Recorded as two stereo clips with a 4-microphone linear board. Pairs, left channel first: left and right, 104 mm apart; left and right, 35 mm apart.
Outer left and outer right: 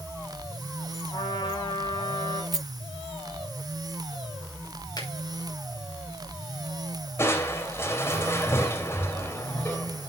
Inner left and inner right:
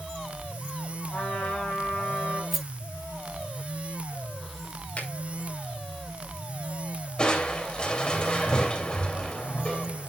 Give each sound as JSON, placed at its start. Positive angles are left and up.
{"t": 1.1, "sound": "a trumpet", "side_deg": 45, "distance_m": 8.0}
{"t": 2.5, "sound": "a rattle", "side_deg": -5, "distance_m": 1.0}
{"t": 5.0, "sound": "a finger snap", "side_deg": 40, "distance_m": 6.0}
{"t": 7.2, "sound": "crushing", "side_deg": 25, "distance_m": 3.0}